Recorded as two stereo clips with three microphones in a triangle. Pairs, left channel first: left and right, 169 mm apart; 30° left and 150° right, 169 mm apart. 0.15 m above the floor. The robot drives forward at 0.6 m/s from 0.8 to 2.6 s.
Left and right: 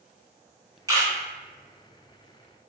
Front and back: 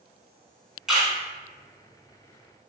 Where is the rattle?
No rattle in this recording.